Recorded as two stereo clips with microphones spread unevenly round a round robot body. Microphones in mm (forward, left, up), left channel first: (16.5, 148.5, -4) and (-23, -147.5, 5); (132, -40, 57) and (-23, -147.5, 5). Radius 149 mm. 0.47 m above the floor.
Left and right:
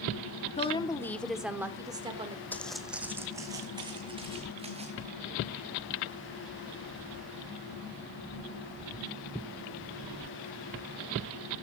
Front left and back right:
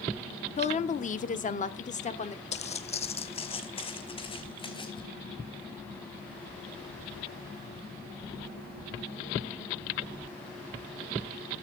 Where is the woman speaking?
75° left, 0.7 m; by 2.4 s 25° right, 1.1 m.